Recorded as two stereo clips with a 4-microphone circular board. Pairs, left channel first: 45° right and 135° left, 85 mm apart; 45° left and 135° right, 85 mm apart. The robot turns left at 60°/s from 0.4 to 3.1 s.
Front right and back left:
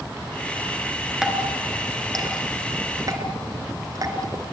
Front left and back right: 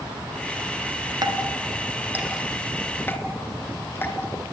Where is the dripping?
145° right, 2.5 m; by 4.4 s 105° left, 2.5 m.